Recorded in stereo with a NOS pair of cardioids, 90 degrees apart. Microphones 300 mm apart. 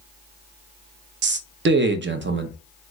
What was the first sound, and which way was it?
A man speaking, 40° right.